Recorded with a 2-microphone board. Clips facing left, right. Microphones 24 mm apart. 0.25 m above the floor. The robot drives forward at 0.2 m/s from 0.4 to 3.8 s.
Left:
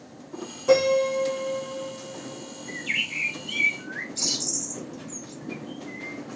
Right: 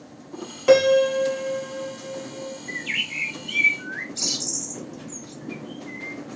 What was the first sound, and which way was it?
A piano, 65° right (ahead or behind).